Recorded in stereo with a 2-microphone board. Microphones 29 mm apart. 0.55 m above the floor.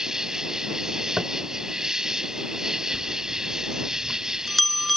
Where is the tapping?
30° right (ahead or behind).